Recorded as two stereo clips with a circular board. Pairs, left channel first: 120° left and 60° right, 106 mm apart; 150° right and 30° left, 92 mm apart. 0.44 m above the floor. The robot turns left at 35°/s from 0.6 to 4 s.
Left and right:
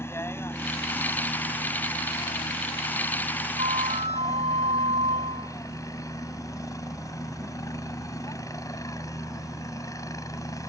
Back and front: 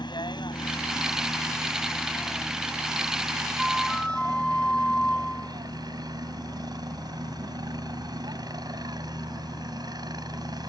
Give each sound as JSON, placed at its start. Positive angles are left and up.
{"t": 0.0, "sound": "a helicopter", "azimuth_deg": -175}
{"t": 3.6, "sound": "a flute", "azimuth_deg": -55}